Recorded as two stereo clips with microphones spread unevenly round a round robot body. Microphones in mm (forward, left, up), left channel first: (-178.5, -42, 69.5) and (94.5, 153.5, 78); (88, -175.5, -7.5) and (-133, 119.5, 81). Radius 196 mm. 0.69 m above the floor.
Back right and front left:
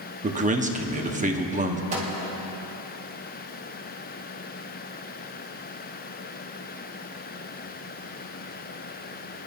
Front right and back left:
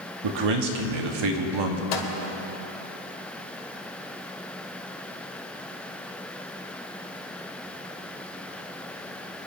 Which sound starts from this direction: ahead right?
A microwave, at 1.9 s.